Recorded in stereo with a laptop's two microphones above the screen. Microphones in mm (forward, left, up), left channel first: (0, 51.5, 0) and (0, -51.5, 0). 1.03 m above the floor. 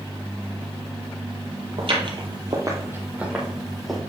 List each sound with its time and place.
1.8 s footsteps: 60° right (ahead or behind), 1.8 m; by 4.0 s 5° left (ahead or behind), 3 m